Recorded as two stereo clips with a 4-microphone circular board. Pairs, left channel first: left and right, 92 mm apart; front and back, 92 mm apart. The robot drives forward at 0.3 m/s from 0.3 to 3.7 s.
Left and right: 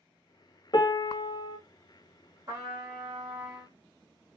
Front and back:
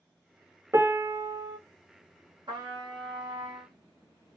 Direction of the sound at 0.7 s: 120° left.